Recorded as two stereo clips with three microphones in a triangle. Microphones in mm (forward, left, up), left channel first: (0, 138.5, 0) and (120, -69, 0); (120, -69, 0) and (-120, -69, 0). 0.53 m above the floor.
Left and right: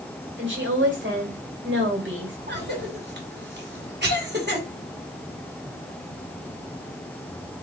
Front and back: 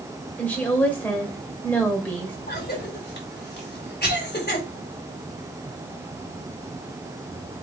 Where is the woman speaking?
85° right, 2 m.